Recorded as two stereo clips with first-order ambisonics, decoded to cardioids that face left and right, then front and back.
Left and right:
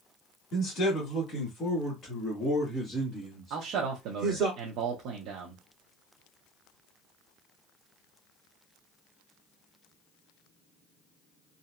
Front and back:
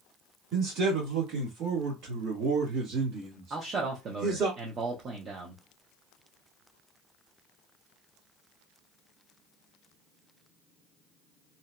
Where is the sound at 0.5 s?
135° left, 1.7 m; by 4.5 s 140° right, 1.6 m.